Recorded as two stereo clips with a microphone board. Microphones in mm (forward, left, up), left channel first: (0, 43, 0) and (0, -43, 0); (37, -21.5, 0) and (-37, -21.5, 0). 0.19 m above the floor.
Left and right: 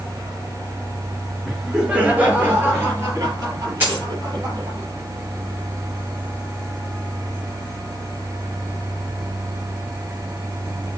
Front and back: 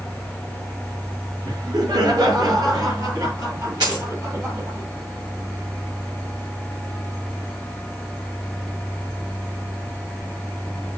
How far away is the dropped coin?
About 6 m.